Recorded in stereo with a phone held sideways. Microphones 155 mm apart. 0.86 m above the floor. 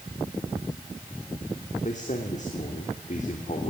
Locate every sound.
1.8 s a man speaking: 55° left (ahead or behind), 3 m